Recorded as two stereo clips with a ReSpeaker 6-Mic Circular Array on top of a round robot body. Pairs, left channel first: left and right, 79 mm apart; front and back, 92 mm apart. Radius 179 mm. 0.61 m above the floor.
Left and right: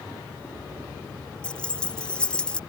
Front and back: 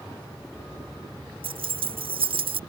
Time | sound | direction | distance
1.4 | keys jangling | 170° left | ?